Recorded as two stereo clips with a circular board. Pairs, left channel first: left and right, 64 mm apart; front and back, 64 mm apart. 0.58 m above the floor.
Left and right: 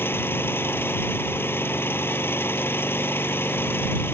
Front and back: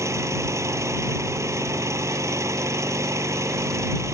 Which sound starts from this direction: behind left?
An engine running, at 0.0 s.